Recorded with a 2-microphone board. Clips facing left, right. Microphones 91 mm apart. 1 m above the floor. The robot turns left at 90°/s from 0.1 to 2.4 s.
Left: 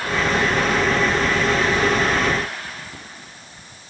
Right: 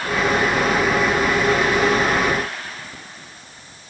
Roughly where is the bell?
I don't hear a bell.